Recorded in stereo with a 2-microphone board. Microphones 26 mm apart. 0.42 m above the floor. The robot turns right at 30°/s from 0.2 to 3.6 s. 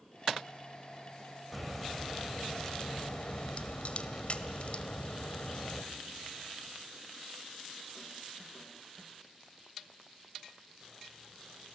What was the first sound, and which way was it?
A crack, 5° right.